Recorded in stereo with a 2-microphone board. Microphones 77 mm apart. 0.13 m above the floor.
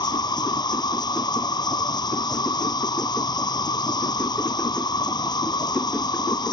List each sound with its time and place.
0.0 s an insect: 65° left (ahead or behind)